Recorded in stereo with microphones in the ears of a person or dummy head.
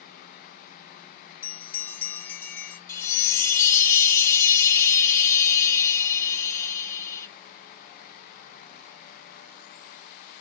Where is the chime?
15° left (ahead or behind), 1.5 m.